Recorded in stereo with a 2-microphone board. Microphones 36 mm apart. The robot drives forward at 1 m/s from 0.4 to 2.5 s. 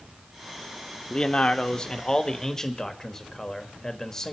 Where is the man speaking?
30° left (ahead or behind), 0.9 m; by 4.3 s 15° left (ahead or behind), 1.5 m.